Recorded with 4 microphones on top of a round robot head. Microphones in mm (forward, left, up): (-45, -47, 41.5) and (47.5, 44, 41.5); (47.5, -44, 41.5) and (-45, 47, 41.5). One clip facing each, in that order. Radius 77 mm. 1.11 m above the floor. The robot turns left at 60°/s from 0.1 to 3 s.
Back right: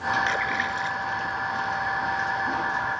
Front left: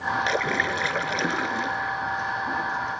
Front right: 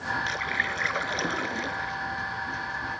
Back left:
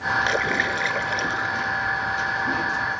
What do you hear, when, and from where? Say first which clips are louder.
0.3 s a splash: front left 2 dB, back left 8 dB; 105° left; by 2.0 s straight ahead